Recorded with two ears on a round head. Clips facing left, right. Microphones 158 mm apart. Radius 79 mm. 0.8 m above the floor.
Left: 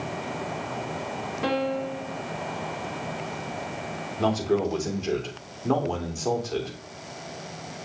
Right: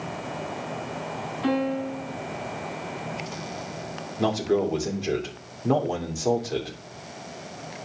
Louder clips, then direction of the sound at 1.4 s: Right 2 dB; 65° left (ahead or behind).